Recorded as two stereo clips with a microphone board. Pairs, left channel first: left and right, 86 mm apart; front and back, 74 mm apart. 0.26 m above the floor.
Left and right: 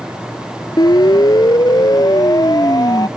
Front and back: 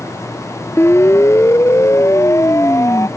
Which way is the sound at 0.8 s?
55° left.